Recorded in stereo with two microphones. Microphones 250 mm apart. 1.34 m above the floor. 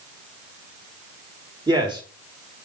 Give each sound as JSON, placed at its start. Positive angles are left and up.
{"t": 1.7, "sound": "a man speaking", "side_deg": -15, "distance_m": 2.5}